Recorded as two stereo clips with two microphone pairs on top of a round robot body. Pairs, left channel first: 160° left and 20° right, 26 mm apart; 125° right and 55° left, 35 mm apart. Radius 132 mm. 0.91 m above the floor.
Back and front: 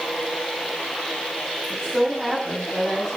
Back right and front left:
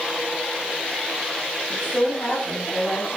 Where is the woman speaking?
95° right, 8 m; by 3.2 s 105° right, 6 m.